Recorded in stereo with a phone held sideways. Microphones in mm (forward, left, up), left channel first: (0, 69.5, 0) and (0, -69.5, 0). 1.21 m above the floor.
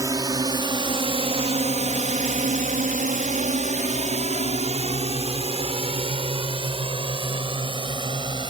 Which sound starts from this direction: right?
A drone, at 0.0 s.